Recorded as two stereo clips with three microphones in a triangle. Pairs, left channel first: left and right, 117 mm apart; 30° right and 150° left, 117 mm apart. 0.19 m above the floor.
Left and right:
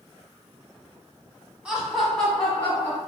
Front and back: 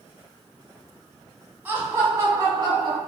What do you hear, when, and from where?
1.6 s laughter: 155° right, 1.2 m; by 3.0 s 140° left, 1.4 m